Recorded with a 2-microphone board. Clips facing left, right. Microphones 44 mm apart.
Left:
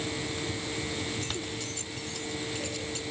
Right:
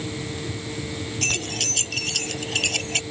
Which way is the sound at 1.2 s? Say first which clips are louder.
Right 8 dB; 80° right.